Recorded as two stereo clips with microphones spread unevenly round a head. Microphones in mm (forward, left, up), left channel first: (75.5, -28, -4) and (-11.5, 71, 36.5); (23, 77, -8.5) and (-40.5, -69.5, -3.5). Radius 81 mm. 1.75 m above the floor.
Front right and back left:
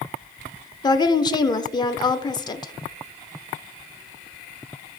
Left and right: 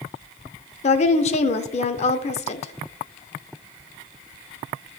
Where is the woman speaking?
20° left, 0.5 m.